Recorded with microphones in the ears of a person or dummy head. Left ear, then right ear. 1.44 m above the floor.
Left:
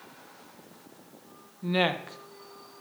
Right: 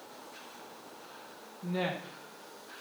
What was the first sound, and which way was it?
A woman speaking, 85° left.